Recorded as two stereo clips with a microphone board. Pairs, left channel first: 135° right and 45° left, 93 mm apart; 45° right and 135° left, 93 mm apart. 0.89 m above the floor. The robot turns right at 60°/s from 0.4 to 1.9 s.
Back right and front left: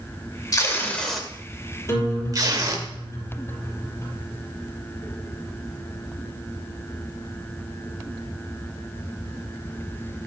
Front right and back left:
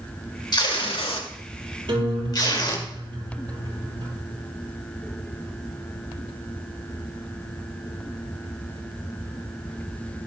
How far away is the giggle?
I don't hear a giggle.